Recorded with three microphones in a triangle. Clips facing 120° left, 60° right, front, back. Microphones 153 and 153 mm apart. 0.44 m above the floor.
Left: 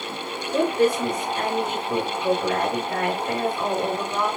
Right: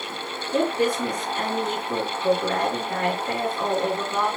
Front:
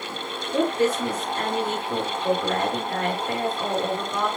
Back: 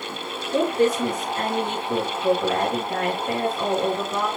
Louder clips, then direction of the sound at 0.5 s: Left 2 dB, back 2 dB; 155° right.